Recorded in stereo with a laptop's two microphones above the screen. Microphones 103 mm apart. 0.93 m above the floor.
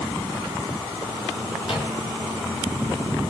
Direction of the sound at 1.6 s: 65° left (ahead or behind).